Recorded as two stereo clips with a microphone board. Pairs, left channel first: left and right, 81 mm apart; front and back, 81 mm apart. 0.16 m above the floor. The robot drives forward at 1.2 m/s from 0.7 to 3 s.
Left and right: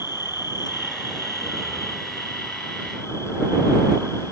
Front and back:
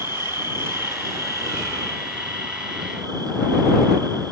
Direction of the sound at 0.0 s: 120° left.